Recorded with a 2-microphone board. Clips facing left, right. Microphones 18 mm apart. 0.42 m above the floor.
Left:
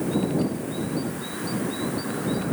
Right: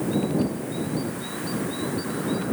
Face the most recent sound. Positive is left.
No sound to turn to.